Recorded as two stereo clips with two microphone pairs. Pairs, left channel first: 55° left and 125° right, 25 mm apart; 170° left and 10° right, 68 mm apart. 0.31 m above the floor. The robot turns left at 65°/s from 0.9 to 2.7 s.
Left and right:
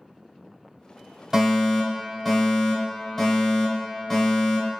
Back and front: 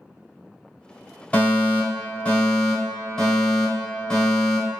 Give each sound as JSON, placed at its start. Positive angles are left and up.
{"t": 1.3, "sound": "a fire alarm", "azimuth_deg": -165, "distance_m": 1.9}